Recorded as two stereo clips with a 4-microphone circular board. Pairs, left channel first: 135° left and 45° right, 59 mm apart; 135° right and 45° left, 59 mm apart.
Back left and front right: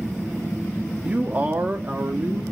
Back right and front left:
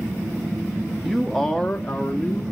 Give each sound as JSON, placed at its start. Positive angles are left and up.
{"t": 1.0, "sound": "a man speaking", "azimuth_deg": -35, "distance_m": 0.7}